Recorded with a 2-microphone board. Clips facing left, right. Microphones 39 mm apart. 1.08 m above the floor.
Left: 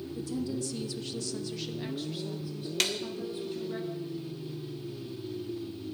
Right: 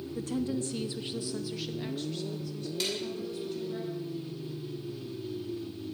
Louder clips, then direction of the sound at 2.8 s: Left 4 dB; 80° left.